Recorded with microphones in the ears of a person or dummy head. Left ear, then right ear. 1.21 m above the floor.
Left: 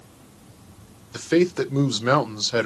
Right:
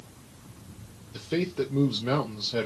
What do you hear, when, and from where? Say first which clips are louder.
1.1 s a man speaking: left 9 dB; 60° left (ahead or behind), 0.6 m